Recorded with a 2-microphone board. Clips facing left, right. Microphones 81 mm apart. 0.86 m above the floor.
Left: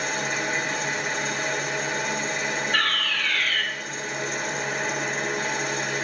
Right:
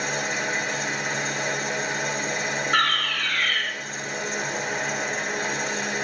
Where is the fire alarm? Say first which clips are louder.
Right 6 dB; 70° right (ahead or behind), 4.5 m.